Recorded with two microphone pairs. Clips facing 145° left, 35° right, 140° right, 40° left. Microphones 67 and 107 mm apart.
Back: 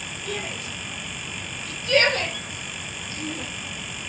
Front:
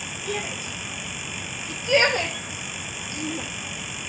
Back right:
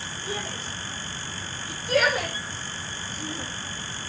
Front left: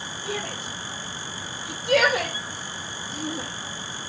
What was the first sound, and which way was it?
A shout, 50° left.